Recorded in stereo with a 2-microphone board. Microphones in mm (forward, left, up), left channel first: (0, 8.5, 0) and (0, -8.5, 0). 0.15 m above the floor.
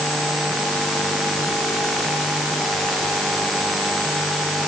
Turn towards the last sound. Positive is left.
No sound to turn to.